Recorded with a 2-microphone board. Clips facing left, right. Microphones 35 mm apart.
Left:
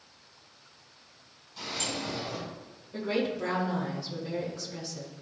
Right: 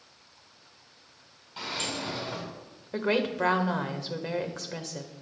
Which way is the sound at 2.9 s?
75° right (ahead or behind).